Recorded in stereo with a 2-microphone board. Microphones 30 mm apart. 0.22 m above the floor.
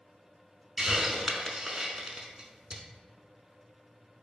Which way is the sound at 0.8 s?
25° right (ahead or behind).